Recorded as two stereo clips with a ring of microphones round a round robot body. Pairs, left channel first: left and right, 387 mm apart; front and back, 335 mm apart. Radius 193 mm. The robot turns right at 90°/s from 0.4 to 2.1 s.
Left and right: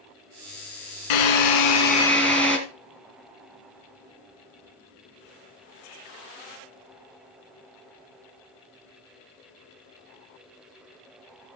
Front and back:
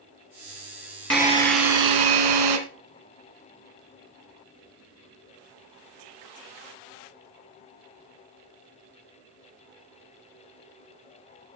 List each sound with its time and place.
1.1 s a drill: 90° left, 2.5 m; by 2.6 s straight behind, 2.5 m